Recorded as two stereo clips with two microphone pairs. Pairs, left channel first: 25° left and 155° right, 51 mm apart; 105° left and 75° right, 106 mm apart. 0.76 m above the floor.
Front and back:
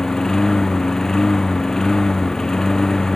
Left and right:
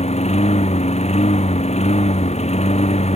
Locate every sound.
0.0 s a lawn mower: 105° left